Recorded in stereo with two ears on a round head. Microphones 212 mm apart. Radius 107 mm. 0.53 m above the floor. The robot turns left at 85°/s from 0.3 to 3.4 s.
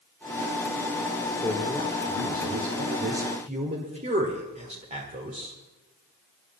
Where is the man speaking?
25° left, 1.6 m; by 5.5 s 145° right, 1.6 m.